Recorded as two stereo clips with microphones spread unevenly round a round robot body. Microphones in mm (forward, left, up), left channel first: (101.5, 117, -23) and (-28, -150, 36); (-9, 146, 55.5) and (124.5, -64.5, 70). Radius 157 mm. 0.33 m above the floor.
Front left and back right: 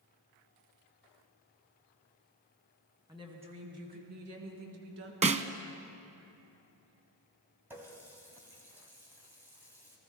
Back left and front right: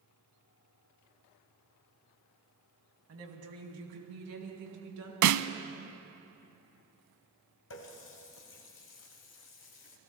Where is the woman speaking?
35° right, 2.5 m; by 5.1 s 70° right, 4 m.